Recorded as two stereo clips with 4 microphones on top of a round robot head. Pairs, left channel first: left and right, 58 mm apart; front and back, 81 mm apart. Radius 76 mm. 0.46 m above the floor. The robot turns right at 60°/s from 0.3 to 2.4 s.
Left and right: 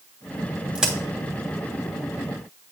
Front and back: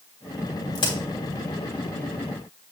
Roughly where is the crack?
Ahead.